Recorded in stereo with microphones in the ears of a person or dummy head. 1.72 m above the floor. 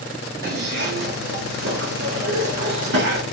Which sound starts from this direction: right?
A zipper, at 0.4 s.